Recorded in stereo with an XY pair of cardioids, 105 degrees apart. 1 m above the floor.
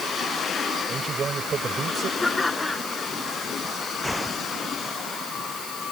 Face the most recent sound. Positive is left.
turn(degrees=5)